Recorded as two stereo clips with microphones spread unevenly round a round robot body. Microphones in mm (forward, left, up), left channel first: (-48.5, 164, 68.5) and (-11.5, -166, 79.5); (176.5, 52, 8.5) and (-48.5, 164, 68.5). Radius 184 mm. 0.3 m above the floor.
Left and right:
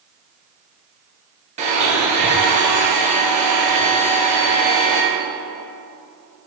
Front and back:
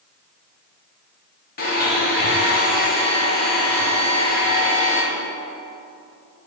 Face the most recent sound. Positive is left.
turn(degrees=-20)